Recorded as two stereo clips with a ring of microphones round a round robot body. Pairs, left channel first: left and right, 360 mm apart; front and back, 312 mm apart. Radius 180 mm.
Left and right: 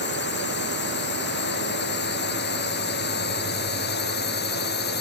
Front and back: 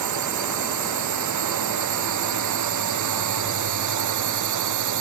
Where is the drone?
155° left.